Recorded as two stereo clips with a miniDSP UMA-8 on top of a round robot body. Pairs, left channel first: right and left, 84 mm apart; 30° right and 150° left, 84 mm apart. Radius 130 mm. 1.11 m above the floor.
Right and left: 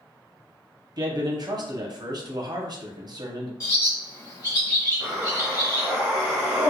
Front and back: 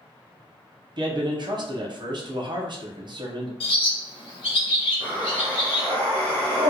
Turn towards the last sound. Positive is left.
turn(degrees=165)